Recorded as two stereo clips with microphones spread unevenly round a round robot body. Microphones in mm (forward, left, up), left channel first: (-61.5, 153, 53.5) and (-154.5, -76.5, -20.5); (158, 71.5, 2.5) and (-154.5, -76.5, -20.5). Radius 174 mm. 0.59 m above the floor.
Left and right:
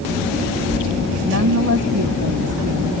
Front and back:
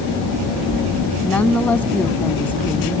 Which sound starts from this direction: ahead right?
A woman speaking, at 1.2 s.